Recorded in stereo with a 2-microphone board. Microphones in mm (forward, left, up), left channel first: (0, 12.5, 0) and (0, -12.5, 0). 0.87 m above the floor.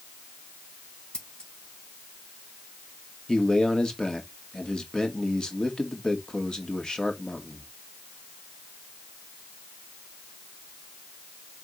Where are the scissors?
35° left (ahead or behind), 2.5 m.